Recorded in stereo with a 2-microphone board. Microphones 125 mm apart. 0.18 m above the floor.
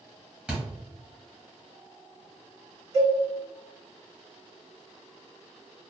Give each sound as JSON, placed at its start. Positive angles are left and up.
{"t": 0.5, "sound": "a thud", "side_deg": -5, "distance_m": 1.6}
{"t": 2.9, "sound": "a cowbell", "side_deg": -35, "distance_m": 1.9}